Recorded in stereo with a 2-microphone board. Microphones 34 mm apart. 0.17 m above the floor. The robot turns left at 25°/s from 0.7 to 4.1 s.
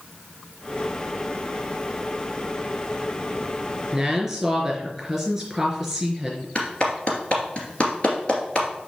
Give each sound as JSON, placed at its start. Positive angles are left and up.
{"t": 3.9, "sound": "a woman speaking", "side_deg": -15, "distance_m": 3.5}
{"t": 6.5, "sound": "a clap", "side_deg": 30, "distance_m": 2.0}